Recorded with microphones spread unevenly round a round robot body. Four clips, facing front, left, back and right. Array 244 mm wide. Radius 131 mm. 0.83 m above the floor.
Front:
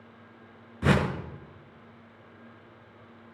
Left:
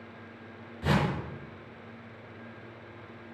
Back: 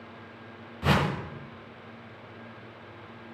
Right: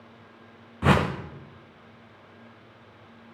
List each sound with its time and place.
0.8 s a whoosh: 55° right, 0.7 m